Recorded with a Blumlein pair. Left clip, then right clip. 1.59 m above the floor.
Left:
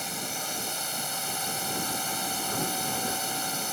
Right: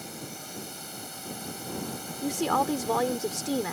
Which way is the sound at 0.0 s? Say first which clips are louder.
Left 8 dB; 65° left.